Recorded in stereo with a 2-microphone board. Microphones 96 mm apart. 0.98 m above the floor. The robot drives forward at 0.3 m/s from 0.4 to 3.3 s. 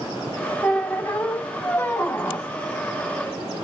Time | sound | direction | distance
0.6 | a squeak | 15° left (ahead or behind) | 0.7 m